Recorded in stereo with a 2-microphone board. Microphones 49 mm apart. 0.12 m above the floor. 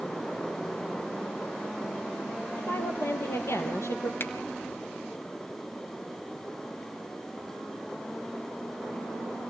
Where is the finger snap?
45° left (ahead or behind), 1.6 m.